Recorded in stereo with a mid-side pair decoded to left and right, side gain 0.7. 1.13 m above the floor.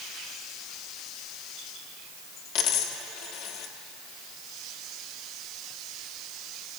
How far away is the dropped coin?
About 1.2 m.